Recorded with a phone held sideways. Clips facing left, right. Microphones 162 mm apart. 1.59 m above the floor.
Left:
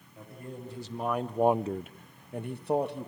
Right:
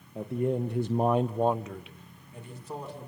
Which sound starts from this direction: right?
A man speaking, at 0.1 s.